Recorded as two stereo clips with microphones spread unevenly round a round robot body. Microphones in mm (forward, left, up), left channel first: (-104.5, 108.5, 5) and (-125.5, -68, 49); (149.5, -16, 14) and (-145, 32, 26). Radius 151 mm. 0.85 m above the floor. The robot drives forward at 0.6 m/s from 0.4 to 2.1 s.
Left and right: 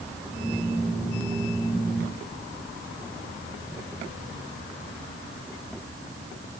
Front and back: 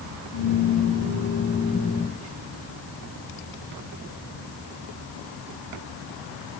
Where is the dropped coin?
I don't hear a dropped coin.